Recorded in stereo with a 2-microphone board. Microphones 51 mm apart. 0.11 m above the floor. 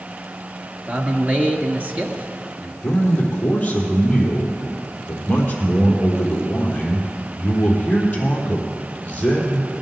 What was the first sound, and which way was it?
A man speaking, 30° right (ahead or behind).